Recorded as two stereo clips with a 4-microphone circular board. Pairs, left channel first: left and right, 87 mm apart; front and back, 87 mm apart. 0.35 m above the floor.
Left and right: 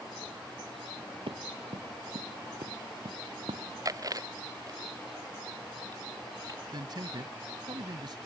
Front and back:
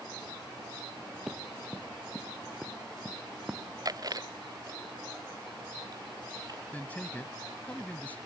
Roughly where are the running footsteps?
Right.